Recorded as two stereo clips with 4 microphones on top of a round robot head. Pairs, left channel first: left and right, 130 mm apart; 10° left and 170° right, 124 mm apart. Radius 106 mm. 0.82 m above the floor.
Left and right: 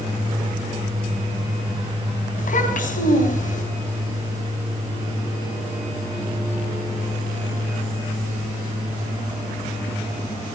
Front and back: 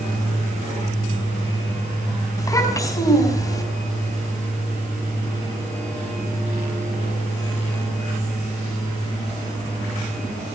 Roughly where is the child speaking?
Left.